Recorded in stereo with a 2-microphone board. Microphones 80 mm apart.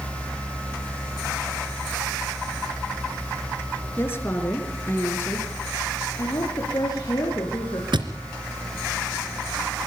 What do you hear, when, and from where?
4.0 s a woman speaking: 30° left (ahead or behind), 4.5 m
6.2 s a woman speaking: 55° left (ahead or behind), 5.5 m
7.9 s a thud: 80° right, 2.5 m